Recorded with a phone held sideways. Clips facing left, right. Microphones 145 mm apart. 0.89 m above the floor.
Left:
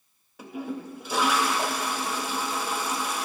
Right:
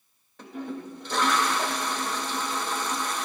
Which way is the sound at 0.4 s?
10° left (ahead or behind).